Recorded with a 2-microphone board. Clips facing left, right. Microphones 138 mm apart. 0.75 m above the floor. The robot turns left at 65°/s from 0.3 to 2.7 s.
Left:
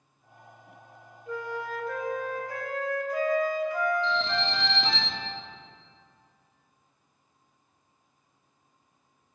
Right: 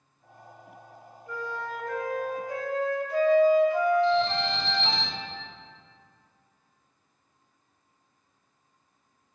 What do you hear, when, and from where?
1.3 s a flute: 45° left, 0.6 m; by 5.0 s 50° right, 0.6 m
4.0 s an alarm: 65° left (ahead or behind), 1.7 m